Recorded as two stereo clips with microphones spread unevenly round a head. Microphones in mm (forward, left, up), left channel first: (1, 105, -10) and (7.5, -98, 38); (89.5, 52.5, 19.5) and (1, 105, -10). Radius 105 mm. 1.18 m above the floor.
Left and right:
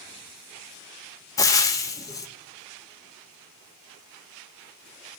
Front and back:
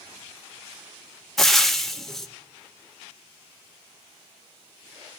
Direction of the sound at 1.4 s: 10° left.